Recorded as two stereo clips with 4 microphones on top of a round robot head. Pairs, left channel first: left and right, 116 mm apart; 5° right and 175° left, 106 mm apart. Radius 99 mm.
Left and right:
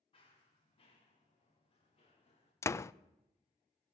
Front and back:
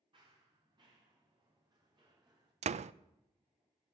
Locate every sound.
0.1 s running footsteps: 130° left, 8.5 m; by 2.5 s 125° left, 9.5 m
2.6 s a door slam: 155° left, 0.6 m